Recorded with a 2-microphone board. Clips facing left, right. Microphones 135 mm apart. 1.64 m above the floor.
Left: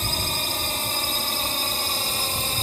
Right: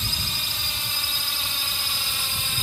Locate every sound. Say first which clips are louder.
0.0 s a drone: left 6 dB; 45° left (ahead or behind); by 2.6 s 40° left (ahead or behind)